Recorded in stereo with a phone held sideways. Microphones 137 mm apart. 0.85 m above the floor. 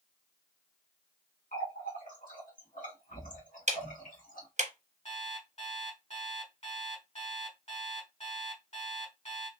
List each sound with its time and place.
1.5 s a running tap: 80° left, 1.3 m
3.7 s ticking: 60° right (ahead or behind), 0.6 m
5.0 s an alarm clock: 55° left (ahead or behind), 1.4 m